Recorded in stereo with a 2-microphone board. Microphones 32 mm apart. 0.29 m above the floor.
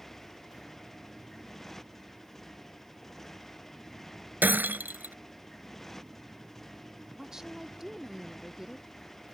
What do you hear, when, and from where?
0.0 s a motorcycle: 10° left (ahead or behind)
4.4 s breaking glass: 80° right
7.2 s a woman speaking: 15° right (ahead or behind)